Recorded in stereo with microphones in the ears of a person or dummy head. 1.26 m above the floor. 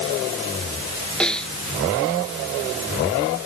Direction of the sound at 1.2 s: 5° left (ahead or behind).